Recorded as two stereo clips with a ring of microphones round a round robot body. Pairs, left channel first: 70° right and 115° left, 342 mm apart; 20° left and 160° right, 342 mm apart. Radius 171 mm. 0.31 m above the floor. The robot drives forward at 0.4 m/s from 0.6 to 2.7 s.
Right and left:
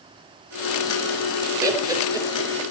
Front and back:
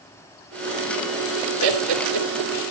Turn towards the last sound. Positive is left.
turn(degrees=-165)